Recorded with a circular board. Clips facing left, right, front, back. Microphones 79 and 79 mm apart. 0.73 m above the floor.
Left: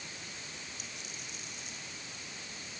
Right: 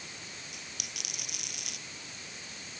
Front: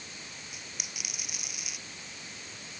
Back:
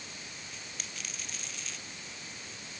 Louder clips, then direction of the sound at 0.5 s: Even, even; 75° right.